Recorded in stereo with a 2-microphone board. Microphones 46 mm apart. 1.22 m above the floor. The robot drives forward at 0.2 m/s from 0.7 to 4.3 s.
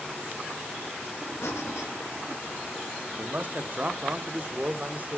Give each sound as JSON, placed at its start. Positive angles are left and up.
{"t": 1.4, "sound": "breathing", "side_deg": 75, "distance_m": 1.3}
{"t": 3.2, "sound": "a man speaking", "side_deg": -45, "distance_m": 0.6}